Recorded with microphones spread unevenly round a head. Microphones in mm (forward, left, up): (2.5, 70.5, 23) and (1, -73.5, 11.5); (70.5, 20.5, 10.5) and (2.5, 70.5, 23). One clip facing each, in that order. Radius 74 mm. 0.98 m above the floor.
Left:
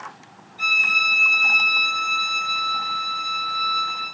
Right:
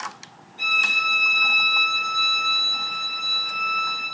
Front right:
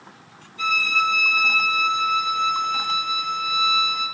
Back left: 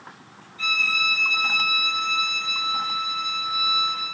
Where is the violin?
30° right, 1.4 m.